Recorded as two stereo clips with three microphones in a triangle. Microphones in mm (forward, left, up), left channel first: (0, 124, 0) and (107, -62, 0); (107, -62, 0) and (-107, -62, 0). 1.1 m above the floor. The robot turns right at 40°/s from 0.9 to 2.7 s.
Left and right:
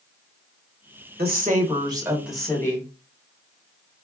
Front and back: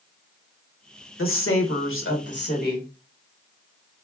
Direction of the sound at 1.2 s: 15° right.